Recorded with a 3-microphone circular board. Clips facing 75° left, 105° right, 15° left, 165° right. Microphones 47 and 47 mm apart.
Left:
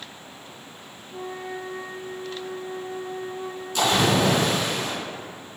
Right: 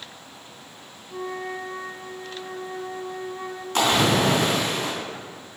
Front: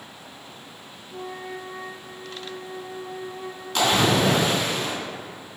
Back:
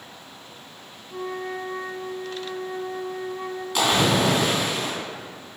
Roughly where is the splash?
Right.